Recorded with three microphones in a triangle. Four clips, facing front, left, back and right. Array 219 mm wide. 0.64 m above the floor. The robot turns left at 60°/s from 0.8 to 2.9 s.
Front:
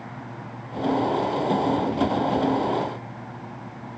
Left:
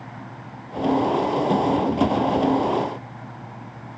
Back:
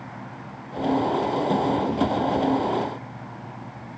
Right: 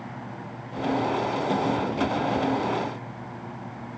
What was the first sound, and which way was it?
Only background noise.